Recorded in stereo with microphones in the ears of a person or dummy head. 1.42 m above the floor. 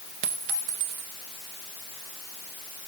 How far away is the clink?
About 0.7 m.